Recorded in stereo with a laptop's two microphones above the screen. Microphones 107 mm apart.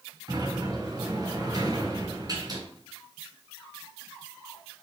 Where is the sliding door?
35° right (ahead or behind), 4 m.